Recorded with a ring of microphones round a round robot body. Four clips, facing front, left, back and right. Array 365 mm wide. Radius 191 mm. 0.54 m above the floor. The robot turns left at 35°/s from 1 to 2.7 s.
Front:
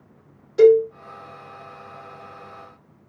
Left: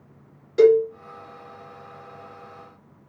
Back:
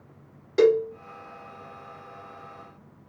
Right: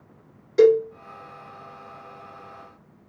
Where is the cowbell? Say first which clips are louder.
Left 1 dB, front 6 dB; 175° right, 1.7 m.